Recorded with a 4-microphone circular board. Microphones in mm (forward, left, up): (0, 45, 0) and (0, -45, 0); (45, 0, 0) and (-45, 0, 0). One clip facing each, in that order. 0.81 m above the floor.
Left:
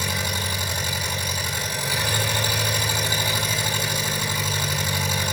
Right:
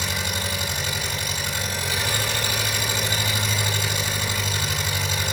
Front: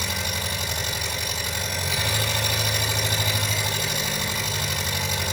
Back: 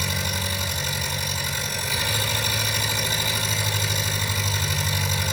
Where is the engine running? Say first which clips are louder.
Left 1 dB, back 1 dB; 15° left, 6 m.